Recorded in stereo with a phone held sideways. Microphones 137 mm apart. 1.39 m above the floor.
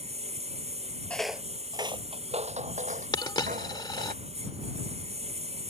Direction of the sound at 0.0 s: 50° right (ahead or behind).